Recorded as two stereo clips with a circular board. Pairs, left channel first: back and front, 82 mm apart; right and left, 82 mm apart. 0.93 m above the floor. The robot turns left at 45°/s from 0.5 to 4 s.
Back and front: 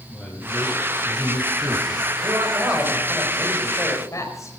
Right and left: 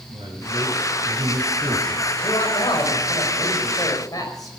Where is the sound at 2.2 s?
50° right, 5 m; by 4.5 s 130° right, 5 m.